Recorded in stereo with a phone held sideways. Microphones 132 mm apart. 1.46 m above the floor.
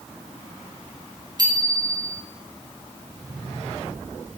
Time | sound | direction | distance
1.4 | a bicycle bell | 35° right (ahead or behind) | 6 m